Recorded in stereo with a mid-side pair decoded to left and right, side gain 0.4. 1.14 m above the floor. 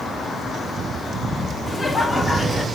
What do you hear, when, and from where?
1.7 s laughter: 20° left, 2 m